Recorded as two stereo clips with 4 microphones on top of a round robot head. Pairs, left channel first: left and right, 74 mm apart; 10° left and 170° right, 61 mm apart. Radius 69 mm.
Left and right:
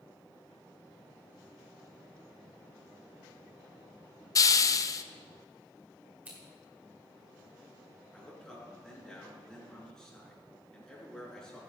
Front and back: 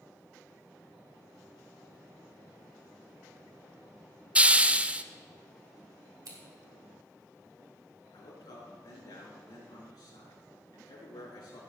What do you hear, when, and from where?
4.3 s a hiss: 120° left, 0.5 m
6.2 s scissors: 165° right, 3 m
8.1 s a man speaking: 5° left, 5 m